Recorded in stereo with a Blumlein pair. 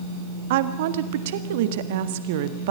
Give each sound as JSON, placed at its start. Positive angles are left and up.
{"t": 0.5, "sound": "a woman speaking", "azimuth_deg": -55, "distance_m": 1.6}